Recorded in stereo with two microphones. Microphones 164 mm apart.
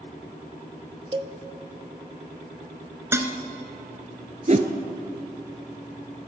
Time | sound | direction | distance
1.1 | a cowbell | 30° right (ahead or behind) | 0.6 m
3.1 | dishes clattering | 15° right (ahead or behind) | 0.8 m
4.5 | a whoosh | 45° right (ahead or behind) | 0.8 m